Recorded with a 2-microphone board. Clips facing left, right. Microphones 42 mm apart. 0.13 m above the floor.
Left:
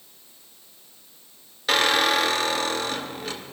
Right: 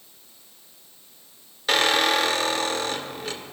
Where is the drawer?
No drawer in this recording.